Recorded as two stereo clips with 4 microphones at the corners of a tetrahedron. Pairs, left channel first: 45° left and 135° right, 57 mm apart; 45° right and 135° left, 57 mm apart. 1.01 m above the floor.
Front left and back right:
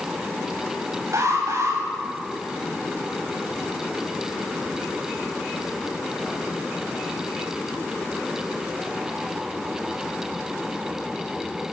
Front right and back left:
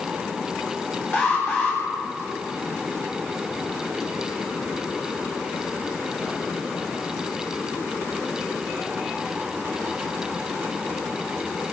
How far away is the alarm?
About 10 m.